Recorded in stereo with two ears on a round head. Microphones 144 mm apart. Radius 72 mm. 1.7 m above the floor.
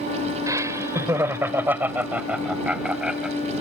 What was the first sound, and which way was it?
Laughter, 20° right (ahead or behind).